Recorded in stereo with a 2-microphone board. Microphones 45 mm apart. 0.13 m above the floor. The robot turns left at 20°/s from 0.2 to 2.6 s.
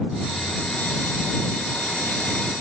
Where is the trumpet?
No trumpet in this recording.